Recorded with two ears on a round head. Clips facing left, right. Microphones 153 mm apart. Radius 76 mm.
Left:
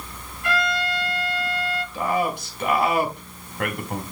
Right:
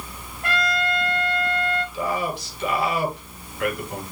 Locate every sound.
0.4 s a trumpet: 40° right (ahead or behind), 5.5 m
1.9 s a man speaking: 45° left (ahead or behind), 3.5 m